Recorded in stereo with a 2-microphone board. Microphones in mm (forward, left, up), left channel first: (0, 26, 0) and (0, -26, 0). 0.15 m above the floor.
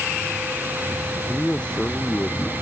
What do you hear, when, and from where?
1.3 s a man speaking: 15° left (ahead or behind)